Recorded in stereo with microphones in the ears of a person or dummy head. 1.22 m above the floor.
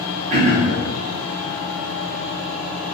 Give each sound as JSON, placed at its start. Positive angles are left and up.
{"t": 0.3, "sound": "throat clearing", "side_deg": -40, "distance_m": 0.7}